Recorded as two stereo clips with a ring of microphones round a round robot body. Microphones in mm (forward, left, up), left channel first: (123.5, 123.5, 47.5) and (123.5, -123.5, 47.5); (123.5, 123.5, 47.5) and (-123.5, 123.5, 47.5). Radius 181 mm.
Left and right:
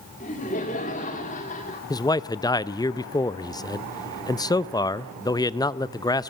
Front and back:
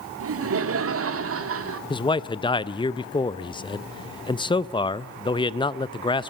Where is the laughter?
155° left, 1.8 m.